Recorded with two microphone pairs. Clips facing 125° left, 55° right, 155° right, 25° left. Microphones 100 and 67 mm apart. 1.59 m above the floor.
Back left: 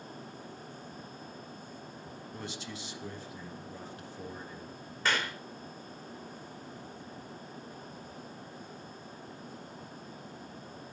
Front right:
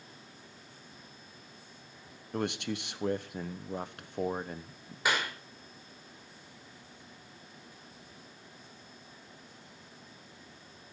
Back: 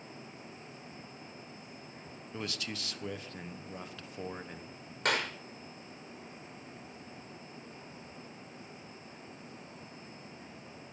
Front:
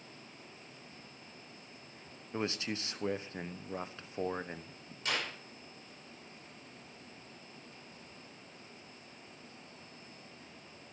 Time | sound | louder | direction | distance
2.3 | a man speaking | front right 11 dB, front 4 dB | 40° right | 1.2 m
5.0 | a clap | front right 1 dB, back 5 dB | 135° right | 5 m